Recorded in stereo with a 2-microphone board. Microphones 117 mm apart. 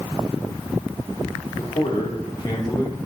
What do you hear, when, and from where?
1.6 s a man speaking: 55° left (ahead or behind), 2.5 m; by 3.0 s 35° left (ahead or behind), 3.5 m